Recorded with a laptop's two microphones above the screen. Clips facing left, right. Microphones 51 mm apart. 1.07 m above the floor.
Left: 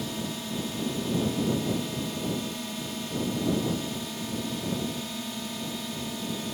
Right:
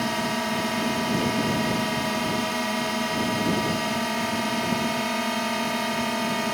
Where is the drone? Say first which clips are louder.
Right 8 dB; 70° right (ahead or behind).